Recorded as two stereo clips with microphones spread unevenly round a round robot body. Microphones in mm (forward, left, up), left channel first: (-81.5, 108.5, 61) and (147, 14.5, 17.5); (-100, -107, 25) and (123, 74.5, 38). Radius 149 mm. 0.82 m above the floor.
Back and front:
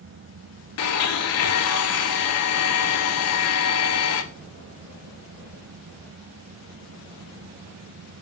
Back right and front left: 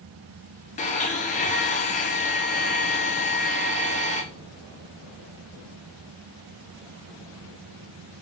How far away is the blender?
About 0.5 m.